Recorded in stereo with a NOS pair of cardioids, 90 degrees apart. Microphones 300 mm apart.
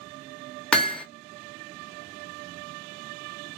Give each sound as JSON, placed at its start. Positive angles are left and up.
{"t": 0.7, "sound": "hammering", "azimuth_deg": 5, "distance_m": 0.8}